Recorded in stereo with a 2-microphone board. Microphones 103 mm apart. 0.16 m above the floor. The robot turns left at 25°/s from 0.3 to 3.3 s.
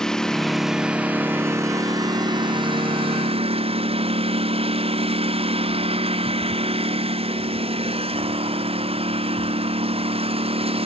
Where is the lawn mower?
5° left; by 10.9 s 70° right.